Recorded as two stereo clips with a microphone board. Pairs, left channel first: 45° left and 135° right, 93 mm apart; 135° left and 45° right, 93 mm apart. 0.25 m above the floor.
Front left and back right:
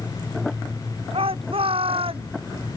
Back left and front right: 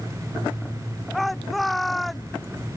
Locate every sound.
1.1 s a shout: 135° right